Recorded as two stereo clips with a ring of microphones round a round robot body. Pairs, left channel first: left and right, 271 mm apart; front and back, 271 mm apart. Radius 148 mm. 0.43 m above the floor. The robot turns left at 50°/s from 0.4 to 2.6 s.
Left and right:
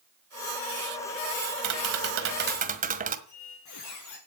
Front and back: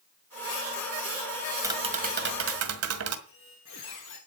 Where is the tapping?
100° right, 1.8 m; by 3.2 s 150° right, 1.8 m.